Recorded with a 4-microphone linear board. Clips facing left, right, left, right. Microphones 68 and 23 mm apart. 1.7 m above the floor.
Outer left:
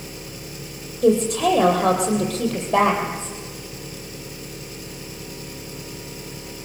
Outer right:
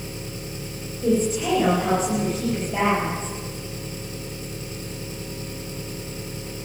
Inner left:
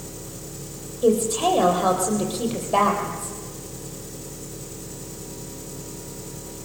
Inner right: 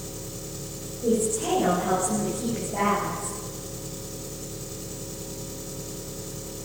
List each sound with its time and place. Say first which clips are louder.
0.0 s an engine running: outer right 2 dB, even; 30° right (ahead or behind), 5 m
1.0 s a woman speaking: outer left 4 dB, inner left 5 dB; 75° left (ahead or behind), 9 m